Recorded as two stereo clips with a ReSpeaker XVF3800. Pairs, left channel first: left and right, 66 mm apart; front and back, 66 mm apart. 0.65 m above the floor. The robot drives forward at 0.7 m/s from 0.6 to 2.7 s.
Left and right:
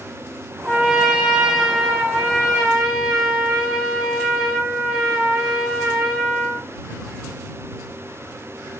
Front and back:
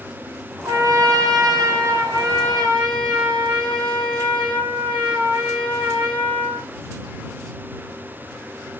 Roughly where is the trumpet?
Behind.